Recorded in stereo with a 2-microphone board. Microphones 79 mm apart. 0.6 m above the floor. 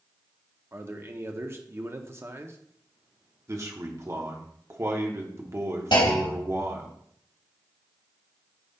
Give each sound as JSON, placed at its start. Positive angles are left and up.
{"t": 0.7, "sound": "a man speaking", "side_deg": -30, "distance_m": 0.8}
{"t": 3.5, "sound": "a man speaking", "side_deg": -40, "distance_m": 1.2}
{"t": 5.9, "sound": "a clunk", "side_deg": 75, "distance_m": 3.0}